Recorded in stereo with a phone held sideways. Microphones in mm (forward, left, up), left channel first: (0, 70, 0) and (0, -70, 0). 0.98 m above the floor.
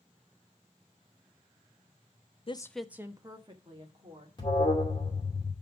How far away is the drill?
I don't hear a drill.